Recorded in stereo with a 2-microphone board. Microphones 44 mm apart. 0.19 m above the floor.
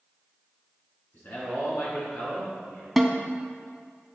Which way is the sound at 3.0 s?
Centre (ahead or behind).